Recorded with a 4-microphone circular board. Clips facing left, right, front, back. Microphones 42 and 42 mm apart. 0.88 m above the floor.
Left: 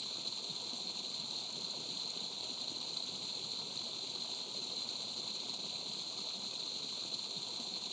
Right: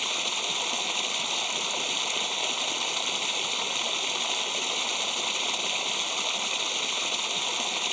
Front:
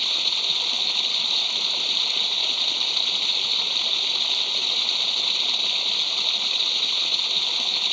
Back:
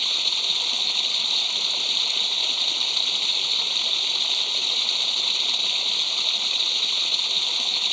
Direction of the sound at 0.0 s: 90° right.